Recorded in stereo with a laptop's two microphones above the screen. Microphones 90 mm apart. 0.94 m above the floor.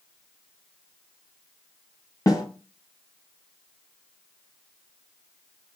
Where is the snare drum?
45° left (ahead or behind), 2 m.